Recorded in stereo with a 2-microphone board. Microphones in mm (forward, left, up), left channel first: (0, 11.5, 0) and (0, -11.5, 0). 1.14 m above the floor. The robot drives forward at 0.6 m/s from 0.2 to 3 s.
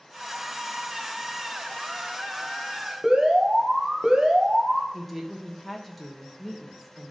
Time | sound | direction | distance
3.0 | an alarm | 45° right (ahead or behind) | 1.5 m
4.9 | a woman speaking | centre (ahead or behind) | 1.4 m